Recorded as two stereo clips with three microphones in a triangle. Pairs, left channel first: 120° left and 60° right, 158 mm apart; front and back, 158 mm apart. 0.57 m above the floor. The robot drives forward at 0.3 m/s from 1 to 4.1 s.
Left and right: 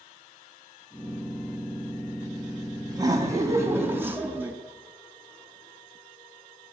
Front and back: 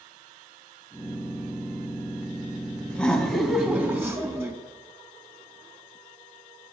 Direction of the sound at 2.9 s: 75° right.